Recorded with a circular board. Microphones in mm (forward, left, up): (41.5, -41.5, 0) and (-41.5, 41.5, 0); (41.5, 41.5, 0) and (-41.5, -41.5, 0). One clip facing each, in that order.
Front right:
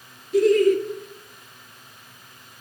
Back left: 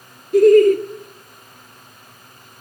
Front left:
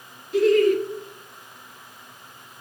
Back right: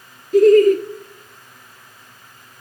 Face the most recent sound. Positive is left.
turn(degrees=175)